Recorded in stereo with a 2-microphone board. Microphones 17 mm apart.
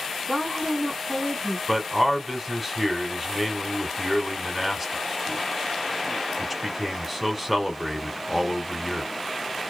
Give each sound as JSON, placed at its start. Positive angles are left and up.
{"t": 0.3, "sound": "a woman speaking", "side_deg": -10, "distance_m": 1.8}
{"t": 1.7, "sound": "a man speaking", "side_deg": 0, "distance_m": 1.1}